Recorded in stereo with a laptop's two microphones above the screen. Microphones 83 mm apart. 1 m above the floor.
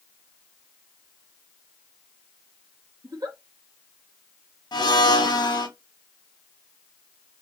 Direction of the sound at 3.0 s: 50° right (ahead or behind).